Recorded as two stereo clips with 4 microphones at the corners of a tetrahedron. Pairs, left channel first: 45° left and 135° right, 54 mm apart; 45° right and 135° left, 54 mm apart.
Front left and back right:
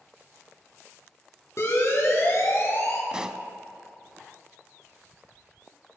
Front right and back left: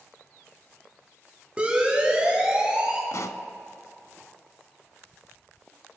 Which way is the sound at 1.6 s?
65° left.